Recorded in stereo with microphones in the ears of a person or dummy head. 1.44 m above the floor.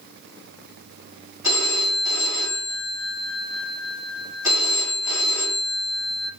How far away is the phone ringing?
About 2.5 m.